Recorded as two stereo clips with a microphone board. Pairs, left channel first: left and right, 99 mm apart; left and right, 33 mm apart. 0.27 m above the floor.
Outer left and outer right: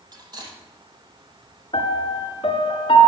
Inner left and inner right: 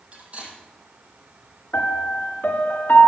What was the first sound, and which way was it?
Cutlery clinking, 45° right (ahead or behind).